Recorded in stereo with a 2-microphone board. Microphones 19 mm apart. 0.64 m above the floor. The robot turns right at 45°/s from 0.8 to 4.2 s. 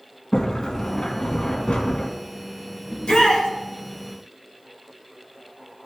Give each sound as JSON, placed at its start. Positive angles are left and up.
{"t": 0.3, "sound": "a sliding door", "azimuth_deg": 35, "distance_m": 1.8}
{"t": 2.9, "sound": "a shout", "side_deg": 40, "distance_m": 3.0}